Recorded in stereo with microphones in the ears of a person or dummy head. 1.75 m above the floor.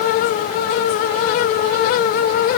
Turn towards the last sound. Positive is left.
No sound to turn to.